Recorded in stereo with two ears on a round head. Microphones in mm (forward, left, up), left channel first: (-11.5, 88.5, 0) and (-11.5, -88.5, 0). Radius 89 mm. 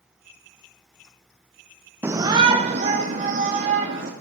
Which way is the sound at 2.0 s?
10° right (ahead or behind).